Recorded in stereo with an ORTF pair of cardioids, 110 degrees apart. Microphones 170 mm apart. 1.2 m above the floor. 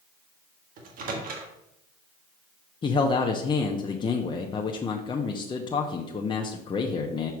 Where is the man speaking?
30° left, 0.8 m.